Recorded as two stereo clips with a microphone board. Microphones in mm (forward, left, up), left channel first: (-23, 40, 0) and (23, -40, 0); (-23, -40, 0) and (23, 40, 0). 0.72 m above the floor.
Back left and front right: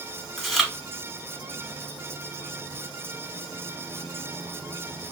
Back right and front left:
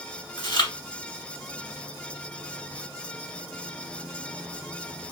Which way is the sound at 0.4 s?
150° right.